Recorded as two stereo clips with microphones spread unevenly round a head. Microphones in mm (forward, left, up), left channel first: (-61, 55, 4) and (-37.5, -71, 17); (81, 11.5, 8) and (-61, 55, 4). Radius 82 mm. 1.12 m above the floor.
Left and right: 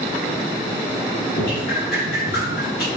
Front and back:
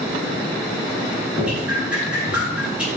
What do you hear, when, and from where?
1.4 s dripping: 80° left, 9.5 m